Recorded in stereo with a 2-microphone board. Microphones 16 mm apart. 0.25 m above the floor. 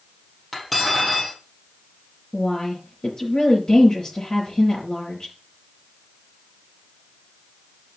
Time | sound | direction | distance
0.5 | cutlery clinking | 5° left (ahead or behind) | 5 m
2.3 | a woman speaking | 35° left (ahead or behind) | 4.5 m